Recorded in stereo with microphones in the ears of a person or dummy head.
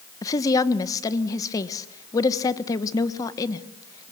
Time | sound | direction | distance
0.2 | a woman speaking | 20° left (ahead or behind) | 1.1 m